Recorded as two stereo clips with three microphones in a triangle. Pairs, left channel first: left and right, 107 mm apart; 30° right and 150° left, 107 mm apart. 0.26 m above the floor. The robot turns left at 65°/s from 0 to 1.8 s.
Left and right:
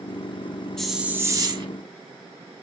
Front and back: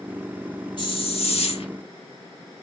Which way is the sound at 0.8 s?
5° left.